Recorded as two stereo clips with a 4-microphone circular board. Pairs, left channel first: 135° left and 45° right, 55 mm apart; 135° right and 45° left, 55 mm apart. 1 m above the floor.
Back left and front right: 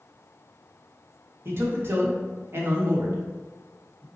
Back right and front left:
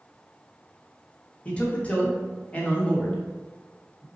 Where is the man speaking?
75° right, 1.2 m.